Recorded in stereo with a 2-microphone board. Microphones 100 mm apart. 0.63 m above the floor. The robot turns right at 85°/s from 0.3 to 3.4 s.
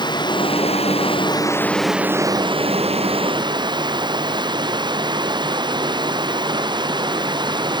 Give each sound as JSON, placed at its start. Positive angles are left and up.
{"t": 0.0, "sound": "running water", "azimuth_deg": 50}